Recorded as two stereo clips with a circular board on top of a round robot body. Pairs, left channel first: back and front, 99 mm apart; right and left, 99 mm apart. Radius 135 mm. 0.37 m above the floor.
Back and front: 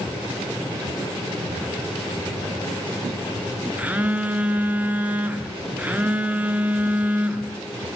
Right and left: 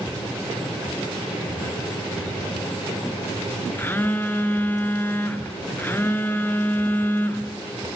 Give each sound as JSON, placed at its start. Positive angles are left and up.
{"t": 3.8, "sound": "a phone buzzing", "azimuth_deg": -55, "distance_m": 1.6}